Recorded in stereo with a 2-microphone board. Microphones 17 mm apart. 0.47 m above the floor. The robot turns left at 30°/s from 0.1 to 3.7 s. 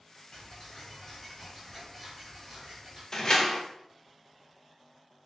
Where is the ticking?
50° left, 1.4 m; by 3.0 s 30° right, 1.4 m.